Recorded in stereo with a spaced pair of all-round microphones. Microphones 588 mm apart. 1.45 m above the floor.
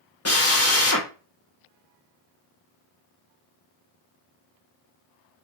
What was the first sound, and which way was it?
A drill, 25° left (ahead or behind).